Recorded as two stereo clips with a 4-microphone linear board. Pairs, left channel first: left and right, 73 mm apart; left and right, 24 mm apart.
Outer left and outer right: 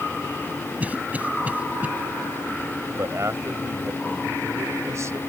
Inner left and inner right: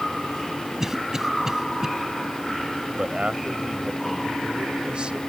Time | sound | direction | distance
0.8 | a cough | 20° right (ahead or behind) | ?
3.0 | a man speaking | 45° right (ahead or behind) | ?